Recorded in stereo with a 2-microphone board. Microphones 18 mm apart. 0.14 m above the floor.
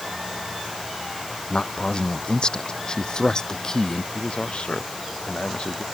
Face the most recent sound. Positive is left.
turn(degrees=55)  # may be behind; listen again after turning